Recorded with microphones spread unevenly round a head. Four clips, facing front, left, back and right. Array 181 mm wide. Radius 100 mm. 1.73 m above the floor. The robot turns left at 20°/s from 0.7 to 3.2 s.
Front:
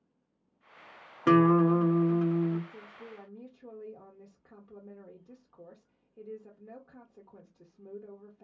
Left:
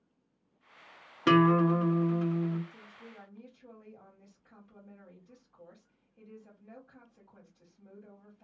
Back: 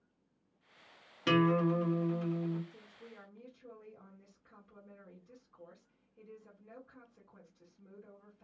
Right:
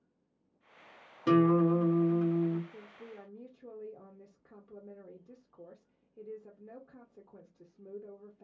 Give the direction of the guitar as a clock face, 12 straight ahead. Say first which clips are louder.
Left 1 dB, front 7 dB; 10 o'clock.